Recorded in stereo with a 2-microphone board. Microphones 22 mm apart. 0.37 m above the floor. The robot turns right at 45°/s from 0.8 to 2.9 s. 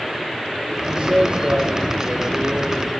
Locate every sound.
0.9 s a man speaking: 110° right, 9 m; by 2.9 s 20° right, 9 m